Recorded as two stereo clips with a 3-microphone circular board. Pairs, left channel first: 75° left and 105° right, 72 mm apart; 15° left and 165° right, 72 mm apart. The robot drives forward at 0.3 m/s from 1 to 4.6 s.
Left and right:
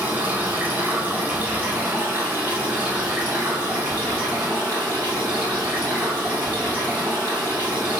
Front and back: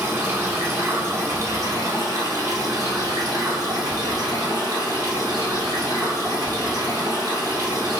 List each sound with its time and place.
0.0 s running water: 150° right, 1.0 m; by 8.0 s 170° right, 1.8 m